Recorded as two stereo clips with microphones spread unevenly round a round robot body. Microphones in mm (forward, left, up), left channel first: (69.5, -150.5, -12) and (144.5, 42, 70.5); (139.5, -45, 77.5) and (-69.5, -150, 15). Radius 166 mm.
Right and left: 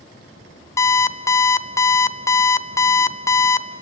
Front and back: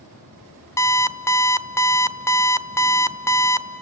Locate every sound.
0.8 s an alarm clock: 65° right, 0.8 m